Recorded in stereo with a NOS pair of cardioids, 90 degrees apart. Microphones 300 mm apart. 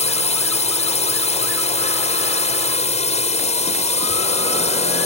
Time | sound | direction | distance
0.0 | a drone | 20° left | ?